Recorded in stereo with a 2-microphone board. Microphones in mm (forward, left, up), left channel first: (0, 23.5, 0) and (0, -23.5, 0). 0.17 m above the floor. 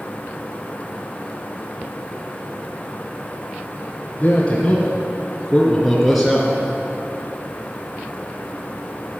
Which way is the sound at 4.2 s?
30° left (ahead or behind).